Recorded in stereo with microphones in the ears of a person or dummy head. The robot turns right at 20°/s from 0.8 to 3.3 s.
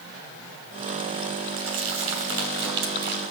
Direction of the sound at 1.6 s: 70° right (ahead or behind).